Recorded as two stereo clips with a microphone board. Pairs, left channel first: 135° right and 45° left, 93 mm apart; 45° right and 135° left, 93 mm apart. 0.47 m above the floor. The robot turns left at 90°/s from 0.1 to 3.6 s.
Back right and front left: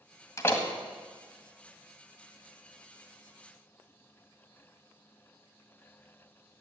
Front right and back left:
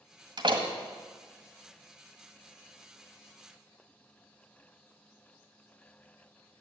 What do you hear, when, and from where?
0.4 s a door slam: 170° left, 1.7 m; by 0.7 s 140° left, 1.7 m